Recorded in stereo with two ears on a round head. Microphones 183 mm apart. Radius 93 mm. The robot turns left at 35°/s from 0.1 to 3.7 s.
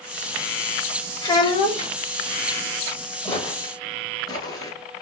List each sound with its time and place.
1.2 s a child speaking: 20° left (ahead or behind), 0.8 m; by 1.9 s 25° left (ahead or behind), 0.8 m
3.2 s footsteps: 10° left (ahead or behind), 1.9 m; by 5.0 s 15° left (ahead or behind), 1.4 m